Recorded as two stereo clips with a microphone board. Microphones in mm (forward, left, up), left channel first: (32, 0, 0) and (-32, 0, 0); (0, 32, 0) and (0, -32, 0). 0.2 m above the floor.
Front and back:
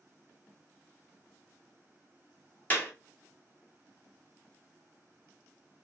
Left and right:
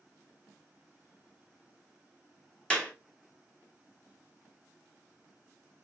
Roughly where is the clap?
Ahead left.